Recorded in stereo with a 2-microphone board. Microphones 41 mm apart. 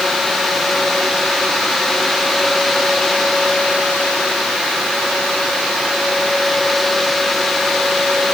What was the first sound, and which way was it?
Only background noise.